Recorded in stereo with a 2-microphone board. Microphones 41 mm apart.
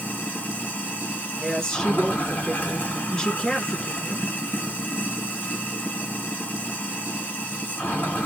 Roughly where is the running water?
Left.